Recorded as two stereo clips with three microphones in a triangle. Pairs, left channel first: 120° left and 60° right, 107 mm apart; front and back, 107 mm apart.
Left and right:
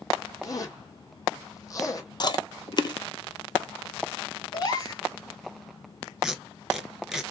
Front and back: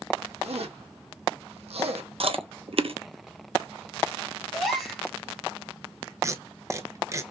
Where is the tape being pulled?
145° right, 0.7 m.